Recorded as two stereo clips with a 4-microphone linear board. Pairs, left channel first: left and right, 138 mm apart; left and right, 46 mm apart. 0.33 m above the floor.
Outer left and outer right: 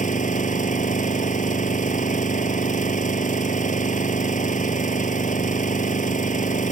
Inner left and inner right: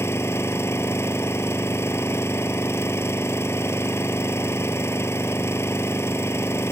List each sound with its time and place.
0.0 s an engine running: 80° left